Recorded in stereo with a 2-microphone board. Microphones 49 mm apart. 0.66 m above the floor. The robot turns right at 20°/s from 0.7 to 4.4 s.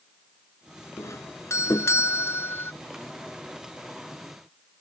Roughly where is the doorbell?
Left.